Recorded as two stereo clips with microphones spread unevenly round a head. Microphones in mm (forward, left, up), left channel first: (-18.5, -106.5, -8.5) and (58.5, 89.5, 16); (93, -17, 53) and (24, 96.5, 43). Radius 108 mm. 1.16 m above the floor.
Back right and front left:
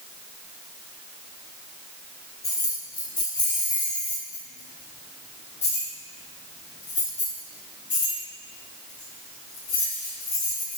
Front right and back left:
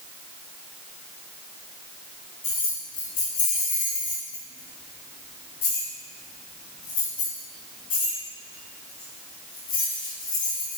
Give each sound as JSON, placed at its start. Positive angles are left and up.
{"t": 2.4, "sound": "keys jangling", "azimuth_deg": -35, "distance_m": 4.0}